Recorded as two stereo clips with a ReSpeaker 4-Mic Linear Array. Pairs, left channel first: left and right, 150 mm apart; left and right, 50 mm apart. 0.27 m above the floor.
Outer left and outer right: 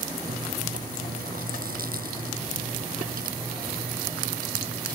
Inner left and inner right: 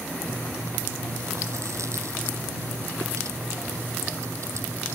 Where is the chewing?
80° right.